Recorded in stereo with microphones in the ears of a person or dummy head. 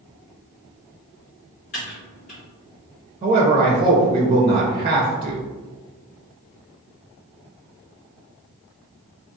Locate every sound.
1.7 s typing on a keyboard: 35° left (ahead or behind), 1.4 m
3.2 s a man speaking: 25° right (ahead or behind), 0.5 m